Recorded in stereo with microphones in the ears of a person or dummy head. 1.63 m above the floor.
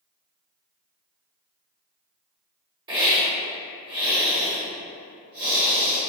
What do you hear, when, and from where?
2.9 s a hiss: 25° right (ahead or behind), 1.2 m